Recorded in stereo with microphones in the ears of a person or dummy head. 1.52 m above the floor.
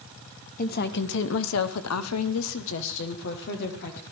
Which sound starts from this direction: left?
A woman speaking, at 0.6 s.